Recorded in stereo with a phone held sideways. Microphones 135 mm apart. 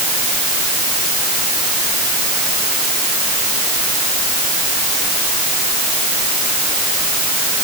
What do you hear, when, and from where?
Only background noise.